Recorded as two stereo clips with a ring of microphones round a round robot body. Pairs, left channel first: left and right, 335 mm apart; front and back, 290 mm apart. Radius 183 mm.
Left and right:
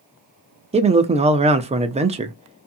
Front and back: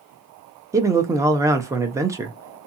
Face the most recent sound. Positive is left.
turn(degrees=-120)